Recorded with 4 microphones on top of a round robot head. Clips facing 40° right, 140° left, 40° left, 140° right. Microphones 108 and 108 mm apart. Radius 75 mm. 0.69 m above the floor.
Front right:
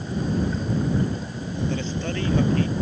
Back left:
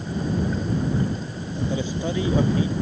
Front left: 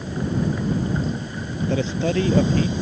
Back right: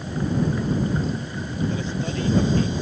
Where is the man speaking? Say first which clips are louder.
Back left 2 dB, front left 5 dB; 60° left.